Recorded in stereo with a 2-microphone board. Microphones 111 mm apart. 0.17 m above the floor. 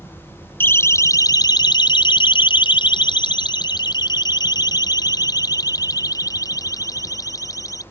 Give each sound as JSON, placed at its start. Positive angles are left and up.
{"t": 0.6, "sound": "a siren", "side_deg": 20}